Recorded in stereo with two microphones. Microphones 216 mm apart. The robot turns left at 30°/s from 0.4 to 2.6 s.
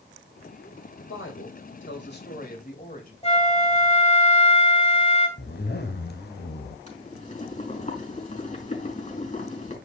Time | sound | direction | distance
1.0 | a woman speaking | 90° left | 3 m
3.2 | a flute | 30° left (ahead or behind) | 1.4 m
5.4 | a zipper | 50° left (ahead or behind) | 1.2 m
6.9 | boiling | 35° left (ahead or behind) | 4 m